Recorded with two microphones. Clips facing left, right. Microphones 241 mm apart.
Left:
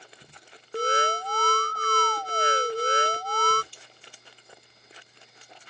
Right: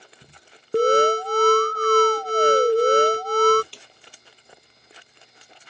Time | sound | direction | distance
0.7 | an alarm | 50° right (ahead or behind) | ?
3.7 | a snare drum | 75° right (ahead or behind) | ?